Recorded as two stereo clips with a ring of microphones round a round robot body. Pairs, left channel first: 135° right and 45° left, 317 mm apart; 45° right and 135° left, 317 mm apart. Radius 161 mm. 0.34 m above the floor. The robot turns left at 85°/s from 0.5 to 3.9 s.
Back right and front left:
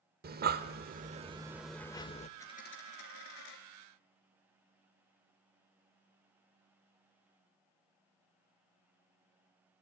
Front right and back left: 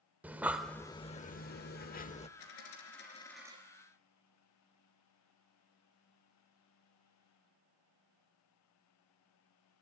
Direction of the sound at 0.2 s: 55° left.